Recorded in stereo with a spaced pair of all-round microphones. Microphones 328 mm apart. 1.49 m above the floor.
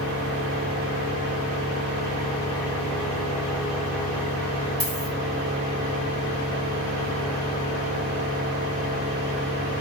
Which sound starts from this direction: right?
A dropped coin, at 4.8 s.